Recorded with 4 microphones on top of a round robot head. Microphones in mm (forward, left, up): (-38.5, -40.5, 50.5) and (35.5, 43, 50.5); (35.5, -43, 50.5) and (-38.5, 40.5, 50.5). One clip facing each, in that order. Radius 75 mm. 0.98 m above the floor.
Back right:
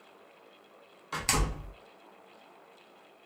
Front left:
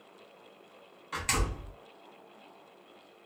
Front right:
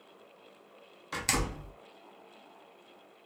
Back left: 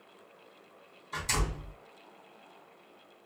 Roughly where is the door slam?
Right.